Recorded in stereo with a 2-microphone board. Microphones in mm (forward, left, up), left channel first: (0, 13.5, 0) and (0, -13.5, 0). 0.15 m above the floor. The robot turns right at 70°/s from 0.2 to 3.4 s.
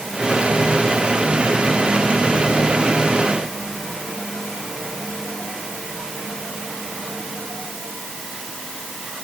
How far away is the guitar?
I don't hear a guitar.